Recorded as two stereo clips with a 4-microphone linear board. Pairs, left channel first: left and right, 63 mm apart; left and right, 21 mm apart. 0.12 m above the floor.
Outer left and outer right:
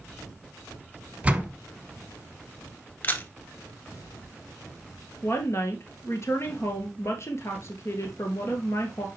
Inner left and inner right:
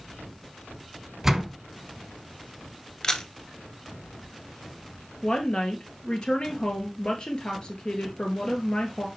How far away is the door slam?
About 1.3 m.